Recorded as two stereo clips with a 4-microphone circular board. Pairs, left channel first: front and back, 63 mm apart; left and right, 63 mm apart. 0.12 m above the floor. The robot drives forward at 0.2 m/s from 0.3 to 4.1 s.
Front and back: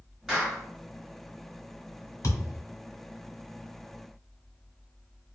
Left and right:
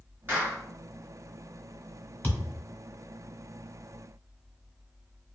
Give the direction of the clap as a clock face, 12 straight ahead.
3 o'clock.